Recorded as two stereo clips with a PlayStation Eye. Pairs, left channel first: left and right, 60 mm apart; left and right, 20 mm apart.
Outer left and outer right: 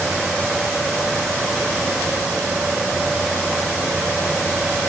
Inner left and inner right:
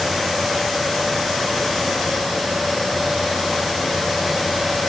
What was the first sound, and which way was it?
Only background noise.